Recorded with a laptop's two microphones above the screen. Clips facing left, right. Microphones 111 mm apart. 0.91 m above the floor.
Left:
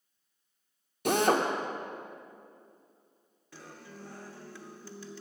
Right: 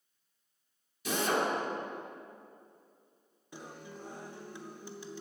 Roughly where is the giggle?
No giggle in this recording.